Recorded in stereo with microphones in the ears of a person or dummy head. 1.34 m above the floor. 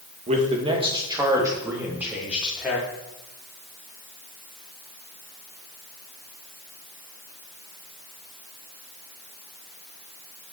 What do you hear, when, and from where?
0.3 s a man speaking: 35° right (ahead or behind), 2 m; by 2.9 s centre (ahead or behind), 4 m